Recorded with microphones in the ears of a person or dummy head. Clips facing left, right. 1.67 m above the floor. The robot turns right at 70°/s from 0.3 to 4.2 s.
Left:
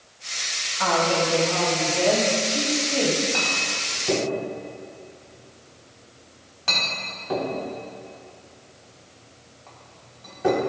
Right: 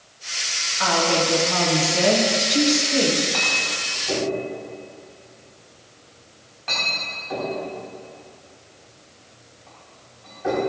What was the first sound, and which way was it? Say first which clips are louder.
A woman speaking: right 1 dB; straight behind.